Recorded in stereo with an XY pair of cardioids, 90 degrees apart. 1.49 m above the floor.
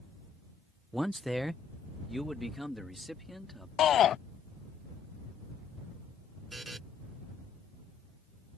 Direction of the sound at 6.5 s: 20° right.